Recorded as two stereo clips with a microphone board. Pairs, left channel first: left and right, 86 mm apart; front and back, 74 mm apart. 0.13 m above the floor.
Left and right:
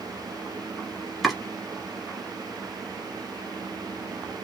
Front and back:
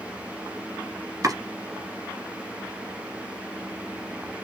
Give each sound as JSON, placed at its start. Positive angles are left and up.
{"t": 1.2, "sound": "chopping", "azimuth_deg": 180, "distance_m": 1.9}